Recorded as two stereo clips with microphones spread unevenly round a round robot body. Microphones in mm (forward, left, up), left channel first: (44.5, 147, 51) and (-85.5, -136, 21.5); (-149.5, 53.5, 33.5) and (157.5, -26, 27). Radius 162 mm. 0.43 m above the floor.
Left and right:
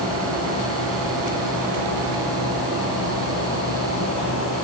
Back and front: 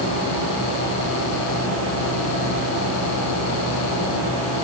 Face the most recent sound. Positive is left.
No sound to turn to.